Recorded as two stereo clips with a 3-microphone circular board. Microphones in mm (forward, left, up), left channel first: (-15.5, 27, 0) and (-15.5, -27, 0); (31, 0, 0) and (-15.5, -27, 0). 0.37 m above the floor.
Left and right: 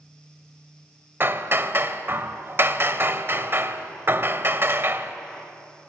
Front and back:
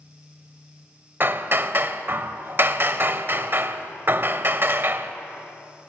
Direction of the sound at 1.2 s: 115° right.